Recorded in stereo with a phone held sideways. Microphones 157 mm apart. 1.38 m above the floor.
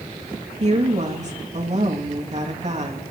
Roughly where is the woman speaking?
Right.